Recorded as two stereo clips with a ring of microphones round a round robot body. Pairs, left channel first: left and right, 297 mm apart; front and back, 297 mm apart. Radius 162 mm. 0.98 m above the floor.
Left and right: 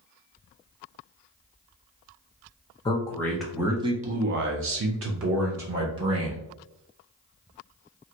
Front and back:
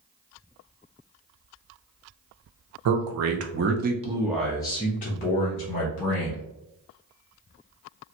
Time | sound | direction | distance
2.9 | a man speaking | 165° left | 0.8 m